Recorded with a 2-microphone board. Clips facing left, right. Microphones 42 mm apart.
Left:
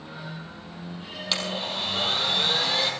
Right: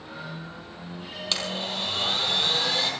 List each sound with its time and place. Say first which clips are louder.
1.3 s a blender: left 1 dB; 5° left (ahead or behind), 3.5 m